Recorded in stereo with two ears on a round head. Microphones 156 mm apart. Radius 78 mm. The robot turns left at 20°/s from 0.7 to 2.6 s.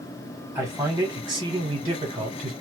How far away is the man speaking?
About 1.2 m.